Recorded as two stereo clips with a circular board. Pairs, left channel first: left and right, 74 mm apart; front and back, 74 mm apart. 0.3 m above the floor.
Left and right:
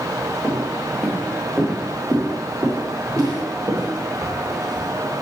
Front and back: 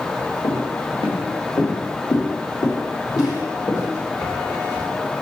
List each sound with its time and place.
0.4 s footsteps: straight ahead, 3 m; by 4.9 s 60° right, 4.5 m